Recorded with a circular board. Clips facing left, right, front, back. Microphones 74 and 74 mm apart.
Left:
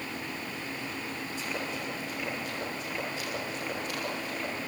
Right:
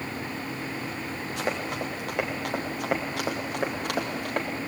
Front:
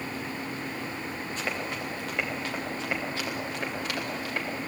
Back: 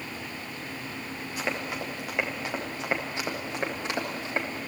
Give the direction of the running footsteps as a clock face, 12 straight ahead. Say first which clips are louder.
Right 7 dB, back 3 dB; 3 o'clock.